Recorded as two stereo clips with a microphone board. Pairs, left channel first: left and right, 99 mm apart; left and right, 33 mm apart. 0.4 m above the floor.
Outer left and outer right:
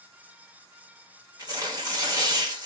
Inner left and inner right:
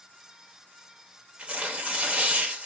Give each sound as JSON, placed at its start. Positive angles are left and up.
{"t": 1.4, "sound": "tearing paper", "side_deg": -35, "distance_m": 1.0}